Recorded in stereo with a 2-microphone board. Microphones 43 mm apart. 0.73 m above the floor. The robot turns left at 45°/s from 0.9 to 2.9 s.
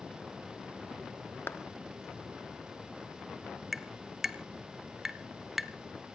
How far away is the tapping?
About 0.8 m.